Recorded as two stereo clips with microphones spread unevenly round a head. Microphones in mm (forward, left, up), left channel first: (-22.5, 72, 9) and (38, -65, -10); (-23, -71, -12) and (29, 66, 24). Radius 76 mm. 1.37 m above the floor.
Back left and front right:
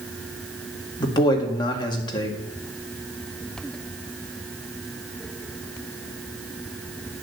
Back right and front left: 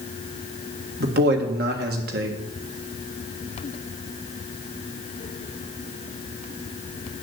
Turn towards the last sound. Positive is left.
turn(degrees=50)